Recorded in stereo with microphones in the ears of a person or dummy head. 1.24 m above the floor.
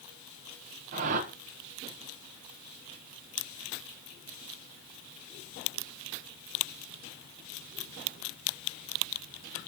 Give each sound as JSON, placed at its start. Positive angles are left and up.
{"t": 0.9, "sound": "a whoosh", "side_deg": -45, "distance_m": 1.2}